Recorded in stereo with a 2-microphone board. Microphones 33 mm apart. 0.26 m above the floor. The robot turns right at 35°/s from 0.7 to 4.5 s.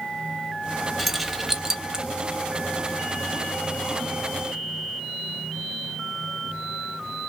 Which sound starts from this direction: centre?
Keys jangling, at 1.0 s.